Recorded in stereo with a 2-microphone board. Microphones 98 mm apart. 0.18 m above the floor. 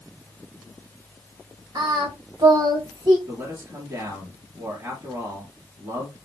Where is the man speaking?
40° right (ahead or behind), 3 m.